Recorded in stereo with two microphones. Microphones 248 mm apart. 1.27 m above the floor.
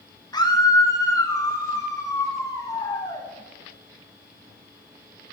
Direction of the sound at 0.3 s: 15° left (ahead or behind).